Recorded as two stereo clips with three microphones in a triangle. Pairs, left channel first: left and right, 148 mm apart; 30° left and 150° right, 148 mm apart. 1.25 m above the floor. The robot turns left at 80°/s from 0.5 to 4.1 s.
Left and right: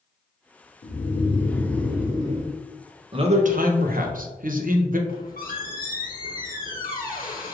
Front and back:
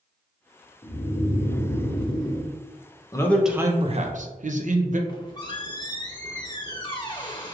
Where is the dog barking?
No dog barking in this recording.